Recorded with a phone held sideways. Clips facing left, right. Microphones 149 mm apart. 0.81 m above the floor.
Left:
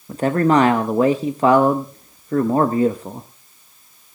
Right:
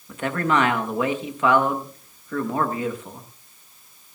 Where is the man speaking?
35° left (ahead or behind), 0.8 m.